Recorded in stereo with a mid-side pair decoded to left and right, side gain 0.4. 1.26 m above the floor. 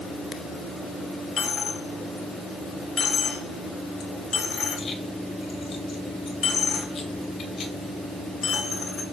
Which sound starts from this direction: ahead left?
A dropped coin, at 1.4 s.